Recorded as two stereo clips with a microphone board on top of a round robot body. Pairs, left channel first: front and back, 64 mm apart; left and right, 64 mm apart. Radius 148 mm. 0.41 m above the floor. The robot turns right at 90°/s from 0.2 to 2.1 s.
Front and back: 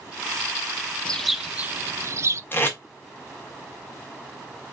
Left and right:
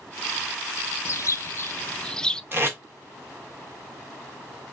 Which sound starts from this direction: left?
A bird, at 1.1 s.